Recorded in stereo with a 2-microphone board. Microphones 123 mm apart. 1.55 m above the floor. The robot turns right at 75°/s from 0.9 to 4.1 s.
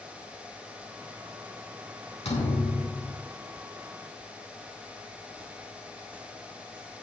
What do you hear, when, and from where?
2.2 s a thud: 110° left, 3 m; by 3.2 s 175° right, 3 m